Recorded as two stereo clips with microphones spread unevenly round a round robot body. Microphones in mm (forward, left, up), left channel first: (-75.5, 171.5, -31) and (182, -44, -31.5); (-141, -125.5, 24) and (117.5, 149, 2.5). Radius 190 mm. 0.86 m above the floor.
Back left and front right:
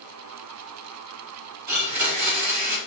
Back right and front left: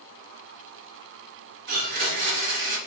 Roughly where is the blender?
Ahead.